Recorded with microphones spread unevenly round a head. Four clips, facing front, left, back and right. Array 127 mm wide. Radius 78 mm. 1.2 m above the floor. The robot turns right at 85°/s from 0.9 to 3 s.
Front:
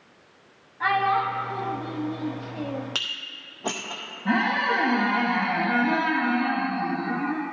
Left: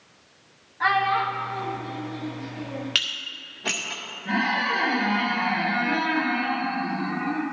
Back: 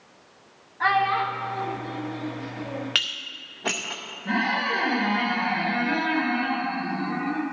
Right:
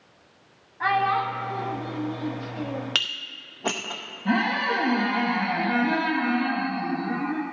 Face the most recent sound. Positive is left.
turn(degrees=-25)